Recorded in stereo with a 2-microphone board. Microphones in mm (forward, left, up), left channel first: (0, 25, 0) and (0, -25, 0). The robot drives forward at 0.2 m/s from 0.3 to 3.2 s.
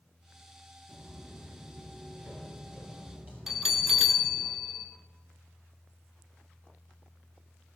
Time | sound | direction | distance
0.9 | footsteps | 25° right (ahead or behind) | 1.5 m
3.5 | a bell | 5° right (ahead or behind) | 0.8 m